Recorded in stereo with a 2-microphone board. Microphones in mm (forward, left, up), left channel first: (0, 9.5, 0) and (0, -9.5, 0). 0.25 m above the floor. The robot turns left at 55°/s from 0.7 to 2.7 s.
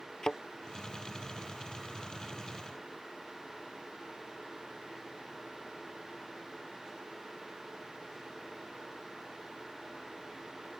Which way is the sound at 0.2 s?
35° left (ahead or behind).